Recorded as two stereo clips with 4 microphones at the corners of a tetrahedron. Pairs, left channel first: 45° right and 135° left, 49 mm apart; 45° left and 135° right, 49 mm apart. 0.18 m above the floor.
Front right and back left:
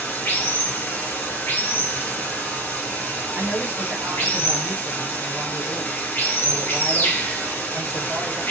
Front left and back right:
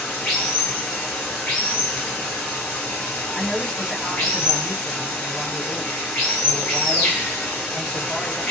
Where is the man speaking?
120° left, 2 m.